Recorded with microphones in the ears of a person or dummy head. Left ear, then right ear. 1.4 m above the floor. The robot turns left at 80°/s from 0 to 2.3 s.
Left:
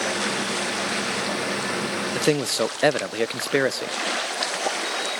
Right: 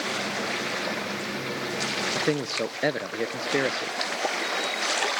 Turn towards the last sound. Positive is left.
turn(degrees=35)  # may be behind; listen again after turning